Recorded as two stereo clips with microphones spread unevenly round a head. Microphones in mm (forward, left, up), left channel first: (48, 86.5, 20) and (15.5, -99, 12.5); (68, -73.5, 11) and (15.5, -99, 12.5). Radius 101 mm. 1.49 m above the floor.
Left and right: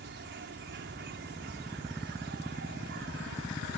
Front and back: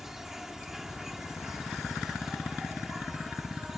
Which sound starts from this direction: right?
An insect, at 0.0 s.